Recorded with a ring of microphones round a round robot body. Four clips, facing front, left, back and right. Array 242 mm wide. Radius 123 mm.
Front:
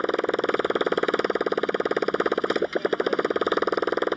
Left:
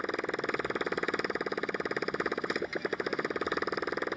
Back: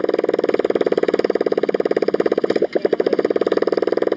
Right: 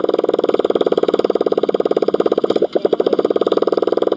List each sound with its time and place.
0.0 s a motorcycle: 120° right